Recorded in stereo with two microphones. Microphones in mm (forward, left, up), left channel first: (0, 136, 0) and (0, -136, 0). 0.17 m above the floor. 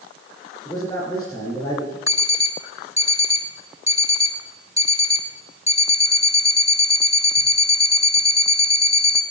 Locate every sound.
0.7 s a man speaking: 15° left (ahead or behind), 3 m
2.1 s an alarm clock: 20° left (ahead or behind), 0.8 m